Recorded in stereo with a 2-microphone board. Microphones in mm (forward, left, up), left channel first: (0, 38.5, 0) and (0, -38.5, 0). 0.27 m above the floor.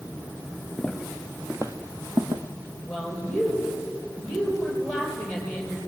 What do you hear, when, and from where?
0.8 s footsteps: 5° left (ahead or behind), 1.8 m; by 2.4 s 75° right (ahead or behind), 1.9 m
2.9 s a woman speaking: centre (ahead or behind), 8.5 m